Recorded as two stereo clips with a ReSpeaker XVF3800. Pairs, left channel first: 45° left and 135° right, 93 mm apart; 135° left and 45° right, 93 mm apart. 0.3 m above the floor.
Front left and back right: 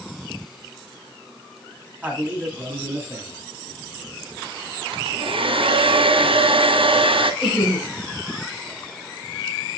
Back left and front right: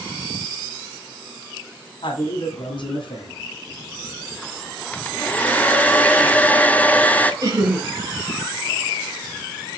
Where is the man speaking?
150° left, 2.0 m.